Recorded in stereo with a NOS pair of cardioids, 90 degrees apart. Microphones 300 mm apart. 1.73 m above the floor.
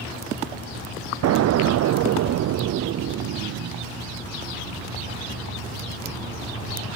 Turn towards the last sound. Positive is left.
turn(degrees=-60)